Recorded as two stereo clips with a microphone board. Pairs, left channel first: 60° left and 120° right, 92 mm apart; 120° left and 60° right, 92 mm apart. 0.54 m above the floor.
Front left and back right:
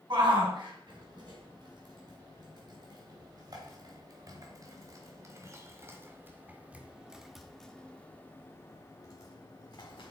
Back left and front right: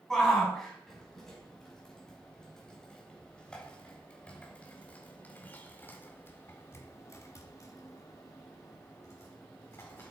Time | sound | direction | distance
0.1 | a shout | 155° right | 5 m